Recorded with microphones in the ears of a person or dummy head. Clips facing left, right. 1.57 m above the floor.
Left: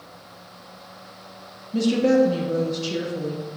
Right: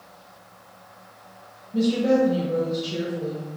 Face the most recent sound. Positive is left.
turn(degrees=80)